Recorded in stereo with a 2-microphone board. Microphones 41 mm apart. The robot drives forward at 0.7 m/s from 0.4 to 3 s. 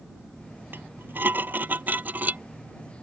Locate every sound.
0.7 s dishes clattering: 55° right (ahead or behind); by 2.4 s 40° right (ahead or behind)